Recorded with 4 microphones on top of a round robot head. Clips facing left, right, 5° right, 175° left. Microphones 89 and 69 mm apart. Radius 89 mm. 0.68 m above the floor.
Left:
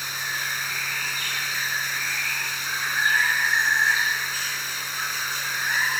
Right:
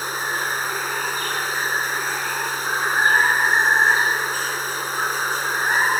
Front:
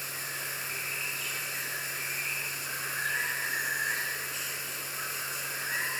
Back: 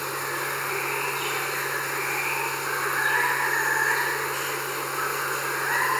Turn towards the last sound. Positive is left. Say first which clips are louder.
# right 6 dB, back 10 dB
turn(degrees=-145)